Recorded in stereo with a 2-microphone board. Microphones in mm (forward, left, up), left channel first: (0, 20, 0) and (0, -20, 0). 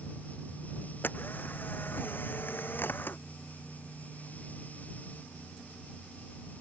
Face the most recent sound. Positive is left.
turn(degrees=50)  # may be behind; listen again after turning